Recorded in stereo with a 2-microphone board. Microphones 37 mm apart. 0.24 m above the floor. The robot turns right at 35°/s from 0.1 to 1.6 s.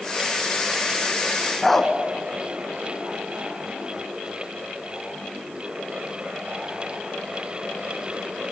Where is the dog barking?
10° left (ahead or behind), 1.2 m.